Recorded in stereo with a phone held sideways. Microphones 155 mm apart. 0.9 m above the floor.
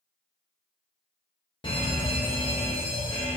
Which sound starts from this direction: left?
A fire alarm, at 1.6 s.